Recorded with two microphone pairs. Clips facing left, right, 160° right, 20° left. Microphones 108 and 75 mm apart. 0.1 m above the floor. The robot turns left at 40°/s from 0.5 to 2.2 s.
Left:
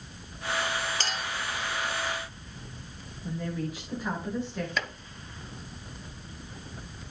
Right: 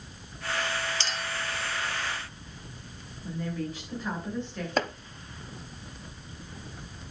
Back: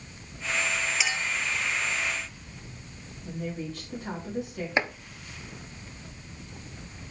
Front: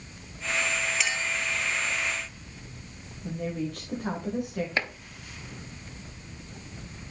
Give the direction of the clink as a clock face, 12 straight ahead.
8 o'clock.